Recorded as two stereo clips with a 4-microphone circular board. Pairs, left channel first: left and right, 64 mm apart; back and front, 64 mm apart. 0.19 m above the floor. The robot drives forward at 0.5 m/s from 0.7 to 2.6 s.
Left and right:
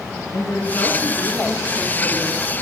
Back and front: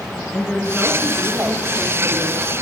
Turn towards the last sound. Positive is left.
turn(degrees=130)